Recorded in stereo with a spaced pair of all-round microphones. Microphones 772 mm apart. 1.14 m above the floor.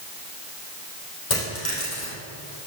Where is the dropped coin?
70° left (ahead or behind), 3.5 m.